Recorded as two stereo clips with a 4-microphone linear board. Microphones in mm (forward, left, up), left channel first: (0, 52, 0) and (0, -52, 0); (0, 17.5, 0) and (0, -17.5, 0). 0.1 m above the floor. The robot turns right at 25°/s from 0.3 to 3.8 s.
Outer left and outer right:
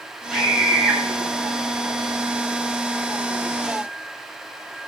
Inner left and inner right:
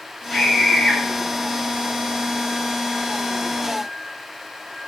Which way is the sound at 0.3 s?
Centre (ahead or behind).